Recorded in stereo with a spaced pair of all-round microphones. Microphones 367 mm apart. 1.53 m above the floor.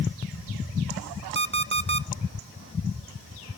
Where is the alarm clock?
30° right (ahead or behind), 0.6 m.